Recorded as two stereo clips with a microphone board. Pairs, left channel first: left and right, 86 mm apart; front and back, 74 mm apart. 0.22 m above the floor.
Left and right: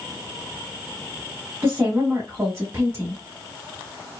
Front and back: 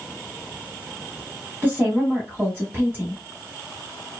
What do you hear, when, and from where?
1.6 s a woman speaking: 135° right, 1.2 m